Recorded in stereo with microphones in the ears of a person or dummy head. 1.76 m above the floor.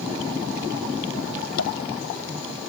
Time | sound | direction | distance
1.6 | tapping | 85° left | ?